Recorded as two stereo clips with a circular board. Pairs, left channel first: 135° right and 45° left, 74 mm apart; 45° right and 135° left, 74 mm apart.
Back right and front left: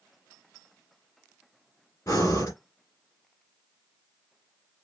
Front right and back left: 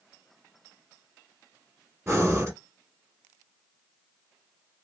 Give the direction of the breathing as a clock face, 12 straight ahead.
6 o'clock.